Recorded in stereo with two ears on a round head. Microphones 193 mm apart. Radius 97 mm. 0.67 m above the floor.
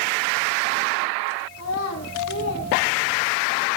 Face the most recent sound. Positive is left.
turn(degrees=50)  # may be behind; listen again after turning